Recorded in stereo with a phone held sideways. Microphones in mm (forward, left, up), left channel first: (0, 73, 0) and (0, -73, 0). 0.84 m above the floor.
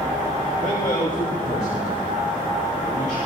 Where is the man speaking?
60° left (ahead or behind), 1.8 m; by 3.2 s 65° left (ahead or behind), 3.5 m.